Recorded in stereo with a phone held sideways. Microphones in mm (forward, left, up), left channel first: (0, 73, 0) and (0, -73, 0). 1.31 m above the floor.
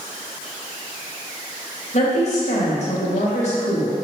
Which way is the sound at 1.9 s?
50° left (ahead or behind).